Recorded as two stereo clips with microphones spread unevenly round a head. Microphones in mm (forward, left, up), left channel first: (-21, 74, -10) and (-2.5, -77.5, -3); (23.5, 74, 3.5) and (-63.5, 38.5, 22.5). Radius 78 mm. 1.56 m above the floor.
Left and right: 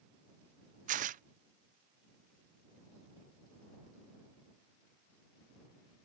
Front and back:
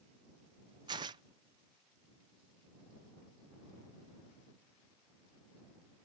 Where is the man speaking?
No man speaking in this recording.